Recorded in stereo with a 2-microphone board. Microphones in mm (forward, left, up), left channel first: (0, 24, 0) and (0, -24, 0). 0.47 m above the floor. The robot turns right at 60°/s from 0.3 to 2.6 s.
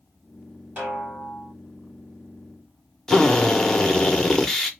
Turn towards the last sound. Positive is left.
turn(degrees=10)  # may be behind; listen again after turning